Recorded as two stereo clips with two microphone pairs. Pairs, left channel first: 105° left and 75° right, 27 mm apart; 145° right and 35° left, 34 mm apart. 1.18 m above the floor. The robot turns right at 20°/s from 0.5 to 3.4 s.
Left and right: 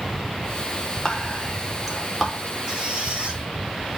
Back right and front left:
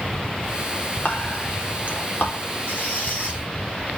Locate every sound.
1.1 s whispering: 175° left, 4 m; by 2.4 s 160° right, 4 m
2.7 s a squeak: 150° right, 3 m; by 3.4 s 135° right, 3 m